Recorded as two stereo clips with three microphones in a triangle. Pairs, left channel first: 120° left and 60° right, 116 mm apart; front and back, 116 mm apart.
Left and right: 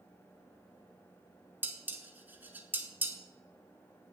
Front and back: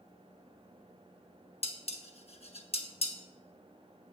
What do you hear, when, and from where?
1.6 s dishes clattering: 15° left, 0.8 m